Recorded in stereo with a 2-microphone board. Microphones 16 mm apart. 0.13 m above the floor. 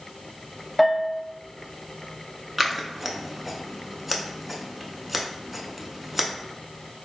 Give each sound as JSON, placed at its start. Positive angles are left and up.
{"t": 0.8, "sound": "a bell", "side_deg": -5, "distance_m": 0.6}
{"t": 2.6, "sound": "scissors", "side_deg": -10, "distance_m": 0.5}